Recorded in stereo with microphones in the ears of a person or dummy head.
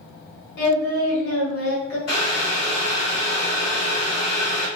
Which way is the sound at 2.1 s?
60° left (ahead or behind).